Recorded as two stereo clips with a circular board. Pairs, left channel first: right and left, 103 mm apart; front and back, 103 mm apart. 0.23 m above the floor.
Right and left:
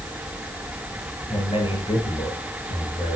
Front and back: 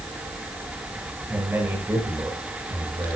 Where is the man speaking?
110° right, 5 m.